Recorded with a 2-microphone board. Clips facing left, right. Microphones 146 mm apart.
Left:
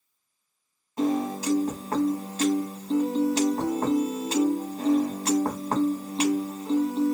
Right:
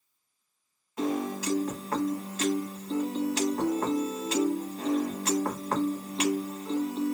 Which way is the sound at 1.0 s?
35° left (ahead or behind).